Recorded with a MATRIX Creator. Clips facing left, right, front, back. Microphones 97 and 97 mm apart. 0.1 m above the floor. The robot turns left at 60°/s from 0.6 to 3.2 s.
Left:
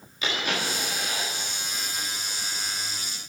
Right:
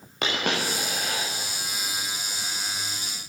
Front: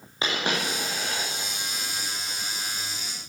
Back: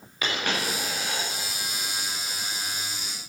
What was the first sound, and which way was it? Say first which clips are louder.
A dropped coin: right 2 dB, front 1 dB; 65° right.